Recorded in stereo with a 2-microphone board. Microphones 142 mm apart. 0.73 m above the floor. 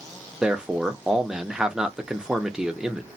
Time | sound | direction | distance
0.4 | a man speaking | 5° right (ahead or behind) | 0.6 m